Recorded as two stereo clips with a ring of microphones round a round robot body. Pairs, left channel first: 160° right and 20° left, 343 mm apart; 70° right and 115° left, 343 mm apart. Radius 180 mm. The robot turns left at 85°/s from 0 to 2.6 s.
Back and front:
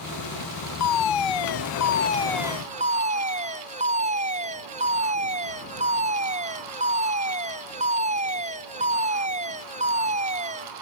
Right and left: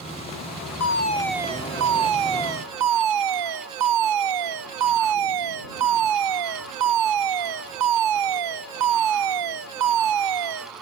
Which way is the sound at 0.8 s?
115° right.